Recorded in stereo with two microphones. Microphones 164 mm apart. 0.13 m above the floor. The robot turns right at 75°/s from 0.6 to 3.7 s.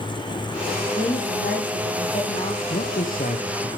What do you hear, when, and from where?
0.9 s a woman speaking: 25° left, 8.5 m; by 2.6 s 150° left, 8.5 m
2.7 s a man speaking: 65° left, 3 m; by 3.7 s 135° left, 3 m